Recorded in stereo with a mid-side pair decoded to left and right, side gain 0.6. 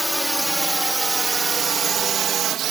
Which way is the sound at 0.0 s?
Straight ahead.